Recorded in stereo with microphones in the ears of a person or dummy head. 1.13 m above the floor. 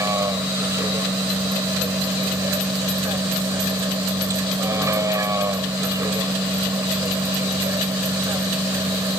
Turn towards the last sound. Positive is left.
turn(degrees=-15)  # may be behind; listen again after turning